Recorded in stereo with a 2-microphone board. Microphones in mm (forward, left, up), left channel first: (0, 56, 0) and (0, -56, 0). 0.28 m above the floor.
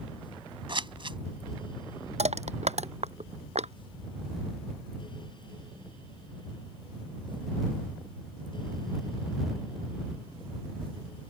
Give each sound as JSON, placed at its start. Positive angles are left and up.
{"t": 0.7, "sound": "scissors", "side_deg": -50}
{"t": 2.2, "sound": "crushing", "side_deg": -80}